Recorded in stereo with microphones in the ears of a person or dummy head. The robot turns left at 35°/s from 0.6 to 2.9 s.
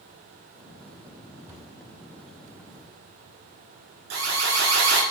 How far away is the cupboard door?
About 3 m.